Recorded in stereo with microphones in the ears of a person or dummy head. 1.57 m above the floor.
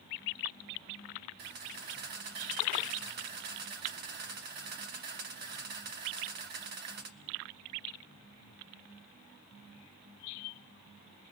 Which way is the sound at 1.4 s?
55° right (ahead or behind).